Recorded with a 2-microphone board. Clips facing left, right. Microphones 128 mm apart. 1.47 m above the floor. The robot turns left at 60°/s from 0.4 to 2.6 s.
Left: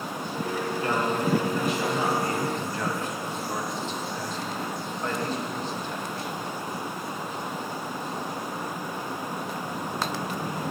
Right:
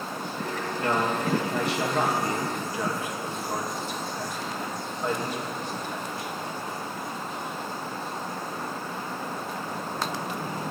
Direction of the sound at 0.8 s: 60° right (ahead or behind).